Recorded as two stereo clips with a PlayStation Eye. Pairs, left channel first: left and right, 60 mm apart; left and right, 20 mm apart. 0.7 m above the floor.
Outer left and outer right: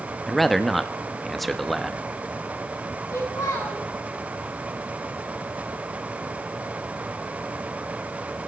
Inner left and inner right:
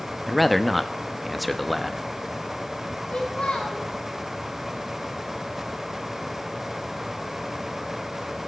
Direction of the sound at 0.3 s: Centre (ahead or behind).